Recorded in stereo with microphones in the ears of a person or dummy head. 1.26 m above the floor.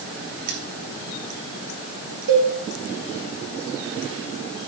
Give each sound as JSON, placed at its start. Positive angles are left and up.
{"t": 0.5, "sound": "cutlery clinking", "side_deg": -55, "distance_m": 1.3}
{"t": 2.3, "sound": "a cowbell", "side_deg": -70, "distance_m": 3.0}